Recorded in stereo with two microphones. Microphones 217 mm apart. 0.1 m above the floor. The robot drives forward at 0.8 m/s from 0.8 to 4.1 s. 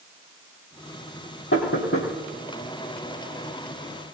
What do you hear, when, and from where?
1.5 s knocking: 65° left (ahead or behind), 3 m